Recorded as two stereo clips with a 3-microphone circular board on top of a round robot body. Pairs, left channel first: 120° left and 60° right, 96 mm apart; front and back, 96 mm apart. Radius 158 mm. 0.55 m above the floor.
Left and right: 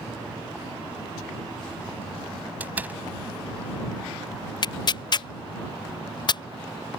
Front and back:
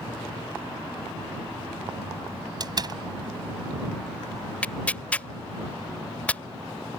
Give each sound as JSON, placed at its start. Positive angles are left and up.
{"t": 2.6, "sound": "a door slam", "azimuth_deg": -135}
{"t": 4.6, "sound": "tearing paper", "azimuth_deg": 75}